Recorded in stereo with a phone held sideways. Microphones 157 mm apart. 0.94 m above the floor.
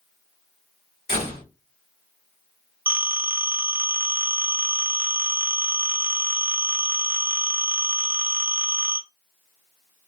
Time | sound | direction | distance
1.1 | a door slam | 80° left | 1.8 m
2.9 | a phone ringing | 15° right (ahead or behind) | 0.5 m